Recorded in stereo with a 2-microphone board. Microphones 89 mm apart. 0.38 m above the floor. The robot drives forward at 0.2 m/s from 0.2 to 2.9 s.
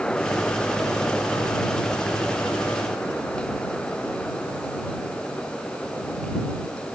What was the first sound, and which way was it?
Only background noise.